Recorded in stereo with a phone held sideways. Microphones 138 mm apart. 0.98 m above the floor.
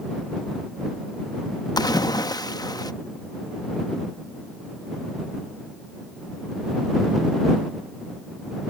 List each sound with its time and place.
1.8 s a splash: 30° left (ahead or behind)